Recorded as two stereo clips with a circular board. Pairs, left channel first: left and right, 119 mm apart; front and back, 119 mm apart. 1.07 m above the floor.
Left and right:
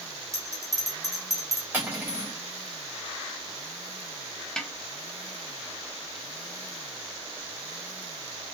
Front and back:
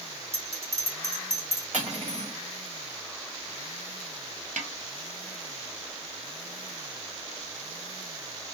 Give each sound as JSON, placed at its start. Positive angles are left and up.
{"t": 0.3, "sound": "a bell", "azimuth_deg": -150, "distance_m": 1.3}
{"t": 1.7, "sound": "cutlery clinking", "azimuth_deg": -160, "distance_m": 1.3}
{"t": 4.6, "sound": "a snare drum", "azimuth_deg": 175, "distance_m": 0.6}